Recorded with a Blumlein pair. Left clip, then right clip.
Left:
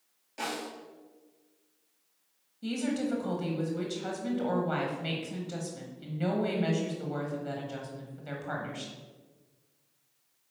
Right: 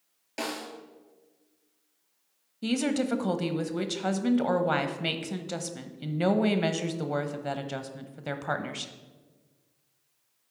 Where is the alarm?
No alarm in this recording.